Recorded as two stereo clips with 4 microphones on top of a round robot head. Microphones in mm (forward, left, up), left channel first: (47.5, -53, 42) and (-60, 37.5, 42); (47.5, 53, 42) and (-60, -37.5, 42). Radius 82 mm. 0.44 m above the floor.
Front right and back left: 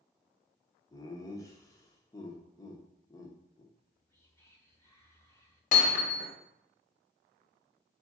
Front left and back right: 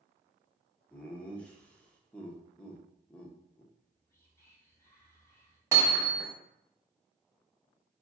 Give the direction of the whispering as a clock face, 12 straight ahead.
12 o'clock.